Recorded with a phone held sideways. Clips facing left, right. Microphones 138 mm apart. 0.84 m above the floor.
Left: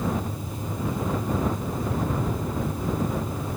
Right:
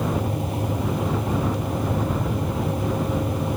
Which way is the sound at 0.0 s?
70° right (ahead or behind).